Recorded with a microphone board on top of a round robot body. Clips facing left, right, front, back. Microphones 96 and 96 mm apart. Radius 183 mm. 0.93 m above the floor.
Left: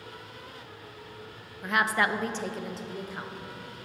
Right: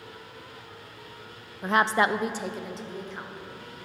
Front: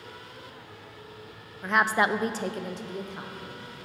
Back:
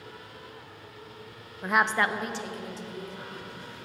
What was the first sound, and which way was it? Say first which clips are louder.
A woman speaking: right 4 dB, front 1 dB; 110° right.